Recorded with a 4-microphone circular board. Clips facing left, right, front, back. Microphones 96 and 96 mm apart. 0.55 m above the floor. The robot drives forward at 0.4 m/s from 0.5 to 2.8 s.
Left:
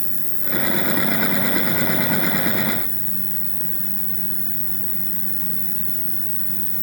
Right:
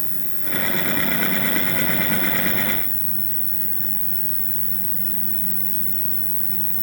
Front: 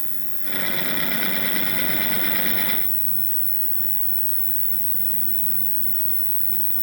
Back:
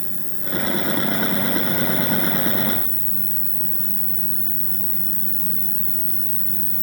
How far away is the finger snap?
I don't hear a finger snap.